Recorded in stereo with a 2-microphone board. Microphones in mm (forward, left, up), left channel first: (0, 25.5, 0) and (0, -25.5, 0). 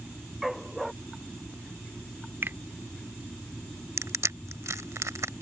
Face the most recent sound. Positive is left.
turn(degrees=-75)  # may be behind; listen again after turning